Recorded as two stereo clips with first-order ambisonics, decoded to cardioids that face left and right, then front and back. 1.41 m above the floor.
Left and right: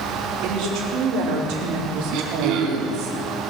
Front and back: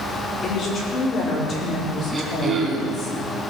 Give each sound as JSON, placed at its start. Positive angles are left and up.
{"t": 0.4, "sound": "a woman speaking", "azimuth_deg": -60, "distance_m": 4.0}
{"t": 2.1, "sound": "throat clearing", "azimuth_deg": -105, "distance_m": 2.0}